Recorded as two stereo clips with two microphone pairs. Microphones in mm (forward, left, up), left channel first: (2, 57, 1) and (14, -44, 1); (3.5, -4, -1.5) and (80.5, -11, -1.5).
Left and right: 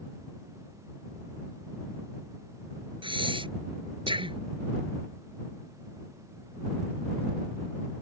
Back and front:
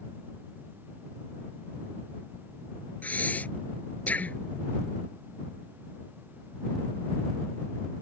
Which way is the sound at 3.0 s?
115° right.